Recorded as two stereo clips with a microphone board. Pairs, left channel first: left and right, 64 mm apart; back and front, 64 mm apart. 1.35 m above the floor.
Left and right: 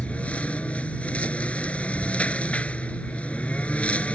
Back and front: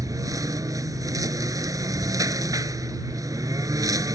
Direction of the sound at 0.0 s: 20° left.